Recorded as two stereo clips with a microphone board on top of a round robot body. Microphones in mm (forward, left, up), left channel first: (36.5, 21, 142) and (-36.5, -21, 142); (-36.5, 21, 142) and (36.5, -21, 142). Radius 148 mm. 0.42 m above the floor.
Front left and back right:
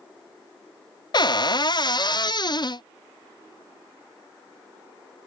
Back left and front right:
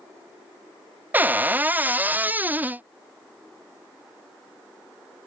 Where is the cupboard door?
35° left.